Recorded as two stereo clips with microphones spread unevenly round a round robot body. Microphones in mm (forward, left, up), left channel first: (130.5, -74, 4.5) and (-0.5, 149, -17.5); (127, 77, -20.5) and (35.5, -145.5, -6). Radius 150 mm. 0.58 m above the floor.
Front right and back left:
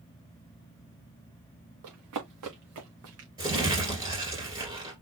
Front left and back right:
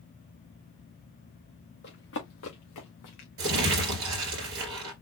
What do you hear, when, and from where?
1.8 s running footsteps: 125° left, 3 m; by 3.3 s 85° left, 3 m
3.4 s crumpling: 160° right, 2.5 m